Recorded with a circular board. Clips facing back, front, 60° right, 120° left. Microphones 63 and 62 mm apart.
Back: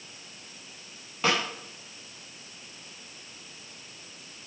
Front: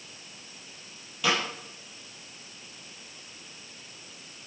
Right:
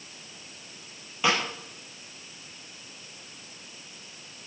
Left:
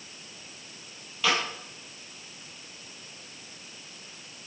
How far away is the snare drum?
About 6.5 m.